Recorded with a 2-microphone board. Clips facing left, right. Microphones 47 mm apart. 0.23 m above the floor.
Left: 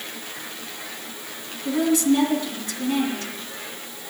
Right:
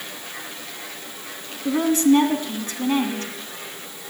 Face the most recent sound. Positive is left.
turn(degrees=-40)  # may be behind; listen again after turning